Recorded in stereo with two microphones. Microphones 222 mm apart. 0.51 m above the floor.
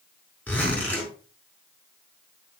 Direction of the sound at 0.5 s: 5° left (ahead or behind).